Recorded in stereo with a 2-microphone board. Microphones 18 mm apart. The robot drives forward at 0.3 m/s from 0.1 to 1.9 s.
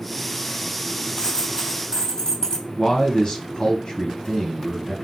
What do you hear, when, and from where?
1.2 s a dropped coin: 50° left (ahead or behind), 1.6 m; by 2.6 s 45° left (ahead or behind), 1.7 m
2.8 s a man speaking: 50° left (ahead or behind), 1.5 m